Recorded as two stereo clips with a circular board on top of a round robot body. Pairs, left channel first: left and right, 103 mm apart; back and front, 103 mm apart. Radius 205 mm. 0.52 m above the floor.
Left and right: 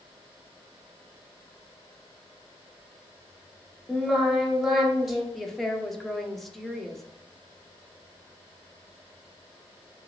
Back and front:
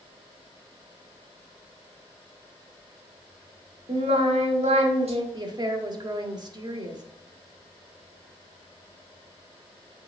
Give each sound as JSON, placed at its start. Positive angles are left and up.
{"t": 3.9, "sound": "singing", "azimuth_deg": -5, "distance_m": 1.1}
{"t": 5.3, "sound": "a woman speaking", "azimuth_deg": 0, "distance_m": 1.0}